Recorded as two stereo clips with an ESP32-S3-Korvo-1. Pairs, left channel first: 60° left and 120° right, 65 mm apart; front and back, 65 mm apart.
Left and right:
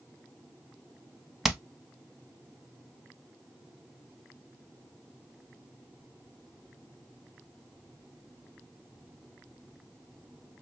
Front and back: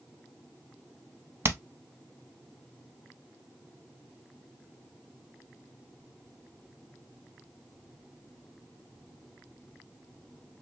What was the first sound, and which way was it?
Hammering, 155° left.